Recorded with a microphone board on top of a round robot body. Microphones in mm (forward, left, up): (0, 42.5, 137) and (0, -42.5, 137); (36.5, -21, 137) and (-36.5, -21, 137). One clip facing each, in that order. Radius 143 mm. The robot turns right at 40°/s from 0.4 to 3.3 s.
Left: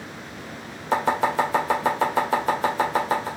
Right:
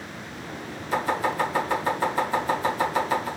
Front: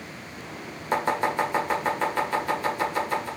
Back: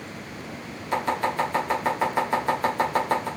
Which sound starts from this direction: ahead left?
Chopping, at 0.9 s.